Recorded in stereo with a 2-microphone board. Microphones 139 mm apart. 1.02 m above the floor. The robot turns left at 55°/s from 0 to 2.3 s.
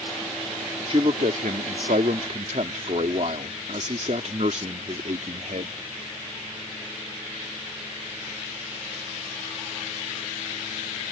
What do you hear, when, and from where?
0.9 s a man speaking: 45° right; by 5.8 s 120° right